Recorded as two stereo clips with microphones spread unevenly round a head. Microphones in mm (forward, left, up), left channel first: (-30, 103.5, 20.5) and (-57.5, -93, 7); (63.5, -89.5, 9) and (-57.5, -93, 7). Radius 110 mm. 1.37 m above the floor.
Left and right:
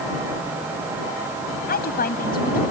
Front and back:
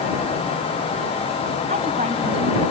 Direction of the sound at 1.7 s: 120° left.